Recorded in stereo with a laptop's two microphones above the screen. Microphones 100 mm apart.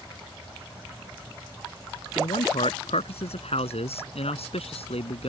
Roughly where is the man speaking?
Left.